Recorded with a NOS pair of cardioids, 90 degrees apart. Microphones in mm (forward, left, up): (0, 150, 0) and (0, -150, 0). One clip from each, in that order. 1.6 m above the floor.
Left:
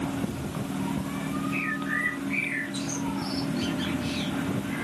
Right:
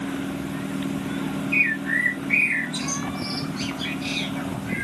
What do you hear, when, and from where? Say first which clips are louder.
1.5 s a bird: right 9 dB; 55° right, 2 m